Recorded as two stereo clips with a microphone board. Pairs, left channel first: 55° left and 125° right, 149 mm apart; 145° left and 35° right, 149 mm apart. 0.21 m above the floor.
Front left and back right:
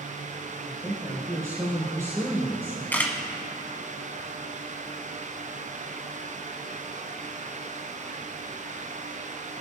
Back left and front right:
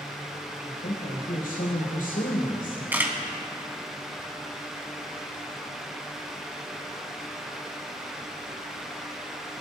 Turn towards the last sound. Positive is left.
turn(degrees=10)